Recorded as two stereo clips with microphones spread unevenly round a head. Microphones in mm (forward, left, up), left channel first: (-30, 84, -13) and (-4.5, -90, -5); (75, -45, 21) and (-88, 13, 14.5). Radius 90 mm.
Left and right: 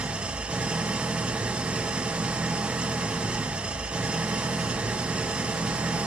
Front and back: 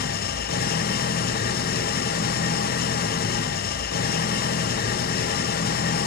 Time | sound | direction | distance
0.0 | an engine running | 5° left | 0.8 m